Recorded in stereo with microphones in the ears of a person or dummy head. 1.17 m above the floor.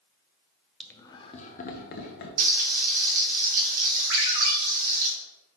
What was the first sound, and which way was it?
Laughter, 5° left (ahead or behind).